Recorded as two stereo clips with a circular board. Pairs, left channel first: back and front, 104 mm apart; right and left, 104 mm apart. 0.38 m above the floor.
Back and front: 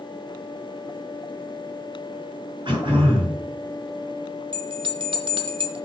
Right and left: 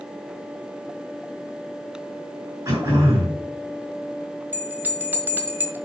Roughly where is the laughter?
I don't hear laughter.